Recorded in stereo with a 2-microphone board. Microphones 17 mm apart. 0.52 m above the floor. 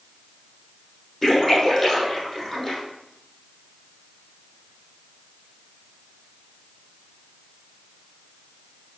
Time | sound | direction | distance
1.2 | a splash | 10° left (ahead or behind) | 4 m